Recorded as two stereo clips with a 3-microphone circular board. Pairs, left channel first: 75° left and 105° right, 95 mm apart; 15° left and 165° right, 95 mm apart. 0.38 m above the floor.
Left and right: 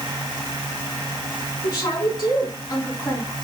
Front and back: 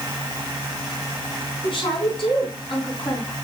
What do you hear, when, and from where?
1.6 s a woman speaking: 35° left, 3 m